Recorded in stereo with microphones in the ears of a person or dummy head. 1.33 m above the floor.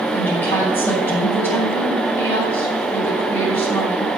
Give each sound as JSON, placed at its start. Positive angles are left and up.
{"t": 0.1, "sound": "a woman speaking", "side_deg": 10, "distance_m": 7.5}